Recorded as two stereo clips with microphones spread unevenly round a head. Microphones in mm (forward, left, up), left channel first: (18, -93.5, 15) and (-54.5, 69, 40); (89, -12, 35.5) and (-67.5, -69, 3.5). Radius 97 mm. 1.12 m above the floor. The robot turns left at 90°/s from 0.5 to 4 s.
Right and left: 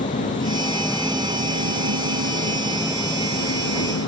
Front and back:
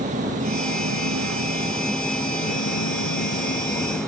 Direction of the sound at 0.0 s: 115° right.